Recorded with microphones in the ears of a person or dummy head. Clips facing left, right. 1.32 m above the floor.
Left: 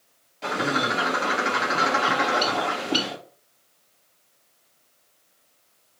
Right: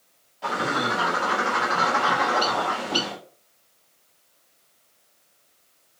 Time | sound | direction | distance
0.4 | a bird | 20° left (ahead or behind) | 0.8 m